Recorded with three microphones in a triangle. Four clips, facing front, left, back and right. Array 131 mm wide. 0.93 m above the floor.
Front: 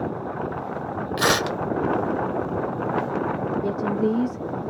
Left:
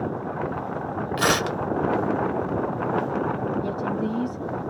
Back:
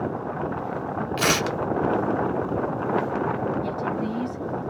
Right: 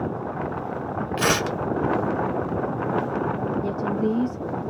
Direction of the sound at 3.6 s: 25° right.